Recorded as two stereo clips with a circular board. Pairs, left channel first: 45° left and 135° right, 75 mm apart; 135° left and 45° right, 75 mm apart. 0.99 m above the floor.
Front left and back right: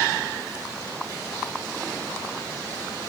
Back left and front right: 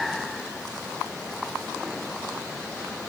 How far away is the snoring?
I don't hear snoring.